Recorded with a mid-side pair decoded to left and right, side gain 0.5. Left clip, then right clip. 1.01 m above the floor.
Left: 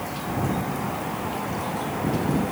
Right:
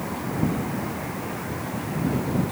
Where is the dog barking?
I don't hear a dog barking.